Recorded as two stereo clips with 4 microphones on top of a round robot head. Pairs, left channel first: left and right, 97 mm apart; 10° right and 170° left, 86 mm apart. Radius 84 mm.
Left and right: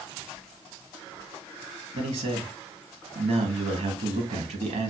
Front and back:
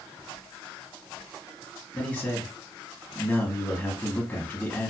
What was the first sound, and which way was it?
A man speaking, 85° right.